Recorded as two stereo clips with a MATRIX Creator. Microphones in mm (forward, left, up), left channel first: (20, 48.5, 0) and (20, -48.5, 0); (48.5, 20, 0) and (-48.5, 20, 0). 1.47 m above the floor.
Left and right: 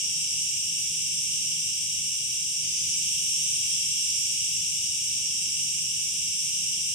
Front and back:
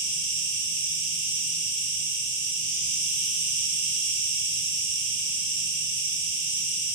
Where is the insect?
5° right, 1.2 m.